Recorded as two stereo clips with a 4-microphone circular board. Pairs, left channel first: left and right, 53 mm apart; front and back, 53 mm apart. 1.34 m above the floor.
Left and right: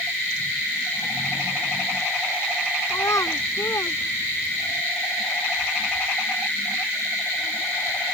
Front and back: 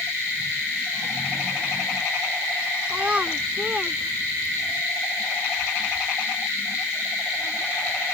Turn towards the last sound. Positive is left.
turn(degrees=120)